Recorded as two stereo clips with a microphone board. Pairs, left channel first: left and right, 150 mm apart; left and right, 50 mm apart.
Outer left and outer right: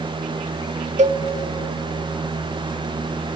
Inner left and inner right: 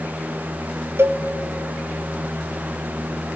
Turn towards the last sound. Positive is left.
turn(degrees=-50)  # may be behind; listen again after turning